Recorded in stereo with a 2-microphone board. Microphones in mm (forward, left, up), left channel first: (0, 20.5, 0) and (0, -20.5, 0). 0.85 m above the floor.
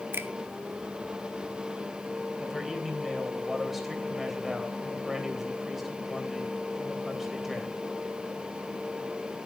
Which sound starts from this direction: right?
A finger snap, at 0.1 s.